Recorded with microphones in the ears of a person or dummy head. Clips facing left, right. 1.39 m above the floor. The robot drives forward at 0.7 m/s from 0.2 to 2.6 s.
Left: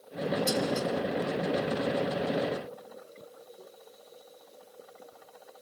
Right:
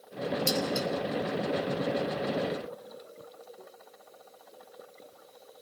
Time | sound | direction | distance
0.5 | dishes clattering | 30° right (ahead or behind) | 3.5 m